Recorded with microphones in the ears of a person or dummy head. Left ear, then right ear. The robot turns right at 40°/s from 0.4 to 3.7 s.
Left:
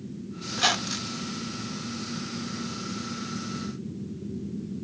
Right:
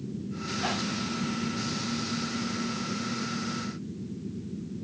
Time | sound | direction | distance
0.5 | a squeak | 70° left (ahead or behind) | 0.6 m